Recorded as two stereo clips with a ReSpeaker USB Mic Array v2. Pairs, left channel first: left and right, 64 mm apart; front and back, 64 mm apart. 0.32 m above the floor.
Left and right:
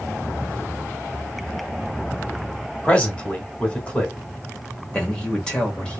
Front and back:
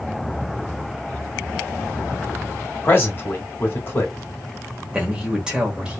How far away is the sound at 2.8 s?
About 1.1 m.